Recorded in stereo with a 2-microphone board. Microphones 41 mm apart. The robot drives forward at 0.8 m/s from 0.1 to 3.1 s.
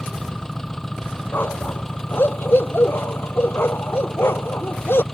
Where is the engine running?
10° left (ahead or behind).